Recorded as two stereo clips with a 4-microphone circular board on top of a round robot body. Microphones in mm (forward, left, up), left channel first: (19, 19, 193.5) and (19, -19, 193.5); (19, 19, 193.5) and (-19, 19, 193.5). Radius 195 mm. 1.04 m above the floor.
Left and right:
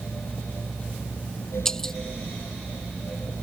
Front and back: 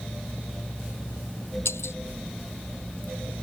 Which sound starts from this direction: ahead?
Breaking glass, at 1.6 s.